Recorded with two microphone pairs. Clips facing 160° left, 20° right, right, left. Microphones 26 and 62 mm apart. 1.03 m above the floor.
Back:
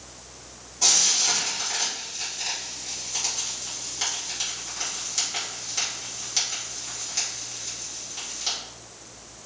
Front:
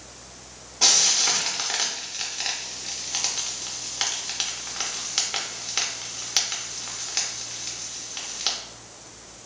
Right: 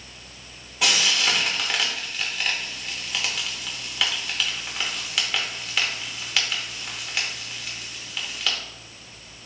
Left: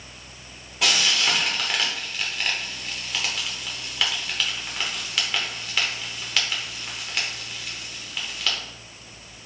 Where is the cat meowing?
No cat meowing in this recording.